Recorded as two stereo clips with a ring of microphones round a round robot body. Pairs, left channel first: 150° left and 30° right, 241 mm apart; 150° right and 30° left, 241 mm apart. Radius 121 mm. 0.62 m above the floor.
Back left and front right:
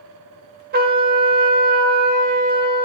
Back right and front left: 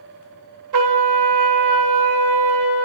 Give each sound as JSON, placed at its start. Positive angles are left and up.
{"t": 0.7, "sound": "a trumpet", "azimuth_deg": 25, "distance_m": 0.9}